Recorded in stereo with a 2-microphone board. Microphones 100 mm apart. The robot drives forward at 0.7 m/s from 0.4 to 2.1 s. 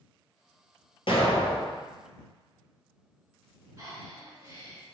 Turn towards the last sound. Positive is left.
turn(degrees=-30)  # may be behind; listen again after turning